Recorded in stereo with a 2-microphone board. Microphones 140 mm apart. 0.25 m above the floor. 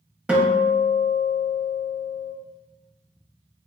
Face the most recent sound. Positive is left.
turn(degrees=-10)  # may be behind; listen again after turning